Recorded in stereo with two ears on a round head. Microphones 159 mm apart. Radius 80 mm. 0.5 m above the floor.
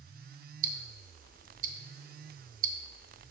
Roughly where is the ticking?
Right.